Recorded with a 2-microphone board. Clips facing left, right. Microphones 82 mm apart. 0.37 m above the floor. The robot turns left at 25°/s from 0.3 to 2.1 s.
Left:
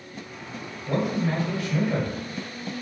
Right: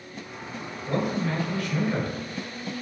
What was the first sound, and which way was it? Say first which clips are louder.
A man speaking: left 1 dB; 160° left.